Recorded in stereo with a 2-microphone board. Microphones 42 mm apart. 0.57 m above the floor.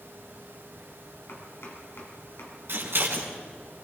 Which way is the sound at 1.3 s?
70° left (ahead or behind).